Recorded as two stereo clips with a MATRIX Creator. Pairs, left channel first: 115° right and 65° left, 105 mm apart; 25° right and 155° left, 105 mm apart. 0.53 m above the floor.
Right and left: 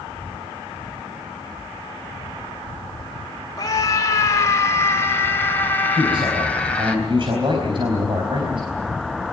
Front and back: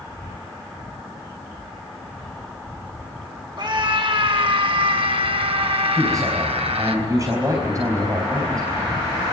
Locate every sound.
3.6 s a scream: 165° right, 2.5 m; by 7.0 s 170° left, 3.5 m
6.0 s a man speaking: 105° left, 4 m